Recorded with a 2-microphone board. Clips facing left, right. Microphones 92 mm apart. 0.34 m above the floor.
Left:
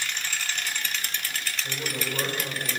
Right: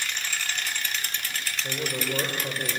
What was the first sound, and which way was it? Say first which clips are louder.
A man speaking: right 4 dB; 40° right (ahead or behind).